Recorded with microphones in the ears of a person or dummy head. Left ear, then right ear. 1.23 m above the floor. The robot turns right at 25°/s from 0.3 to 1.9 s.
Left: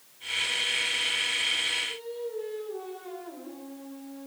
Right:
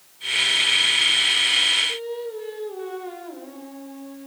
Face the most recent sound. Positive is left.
turn(degrees=-25)  # may be behind; listen again after turning